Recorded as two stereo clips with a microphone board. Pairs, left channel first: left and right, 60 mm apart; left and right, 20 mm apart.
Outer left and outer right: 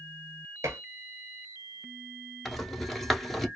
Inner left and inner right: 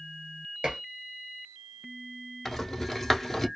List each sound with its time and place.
0.6 s dishes clattering: 55° right (ahead or behind), 1.4 m
2.5 s a rattle: 5° left (ahead or behind), 0.9 m